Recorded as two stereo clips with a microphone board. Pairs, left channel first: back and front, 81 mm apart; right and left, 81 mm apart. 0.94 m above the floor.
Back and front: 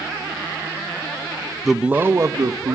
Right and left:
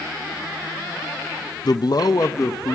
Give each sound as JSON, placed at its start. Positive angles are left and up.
{"t": 1.6, "sound": "a man speaking", "azimuth_deg": -95, "distance_m": 0.5}